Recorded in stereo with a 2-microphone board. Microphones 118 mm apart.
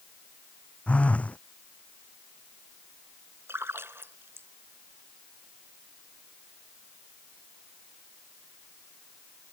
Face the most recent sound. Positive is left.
turn(degrees=-20)  # may be behind; listen again after turning